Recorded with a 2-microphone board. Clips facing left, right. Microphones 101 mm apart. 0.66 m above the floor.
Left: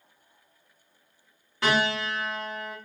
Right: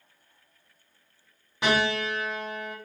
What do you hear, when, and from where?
1.6 s a piano: 20° right (ahead or behind), 2.5 m